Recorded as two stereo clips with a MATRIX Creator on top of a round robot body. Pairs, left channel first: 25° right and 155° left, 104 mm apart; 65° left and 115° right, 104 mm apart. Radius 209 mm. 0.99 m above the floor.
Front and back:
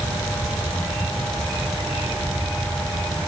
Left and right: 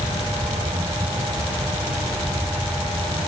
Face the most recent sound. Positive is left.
No sound to turn to.